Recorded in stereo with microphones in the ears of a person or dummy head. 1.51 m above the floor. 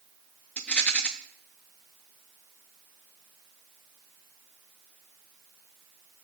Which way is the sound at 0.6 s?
5° left (ahead or behind).